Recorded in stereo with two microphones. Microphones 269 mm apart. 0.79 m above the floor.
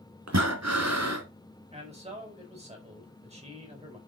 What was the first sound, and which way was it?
Breathing, 65° right (ahead or behind).